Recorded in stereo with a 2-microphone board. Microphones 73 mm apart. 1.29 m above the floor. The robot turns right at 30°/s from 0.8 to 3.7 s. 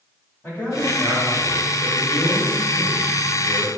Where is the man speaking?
160° left, 1.9 m; by 3.7 s 115° right, 1.9 m.